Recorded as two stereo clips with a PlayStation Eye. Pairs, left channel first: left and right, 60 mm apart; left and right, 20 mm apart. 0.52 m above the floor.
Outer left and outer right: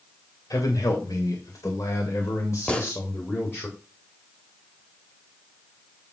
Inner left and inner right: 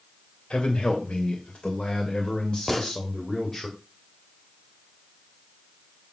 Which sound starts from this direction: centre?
A gunshot, at 2.7 s.